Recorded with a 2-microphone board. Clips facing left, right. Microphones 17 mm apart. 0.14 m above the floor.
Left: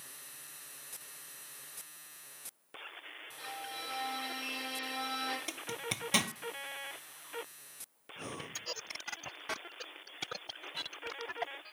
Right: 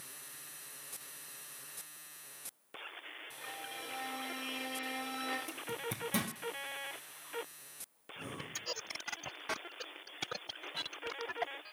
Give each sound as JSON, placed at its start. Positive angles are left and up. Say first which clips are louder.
{"t": 3.4, "sound": "a violin", "louder": "left 3 dB", "side_deg": 65, "distance_m": 7.0}
{"t": 5.5, "sound": "a zipper", "louder": "left 2 dB", "side_deg": 50, "distance_m": 0.8}
{"t": 8.2, "sound": "breathing", "louder": "left 1 dB", "side_deg": 50, "distance_m": 1.1}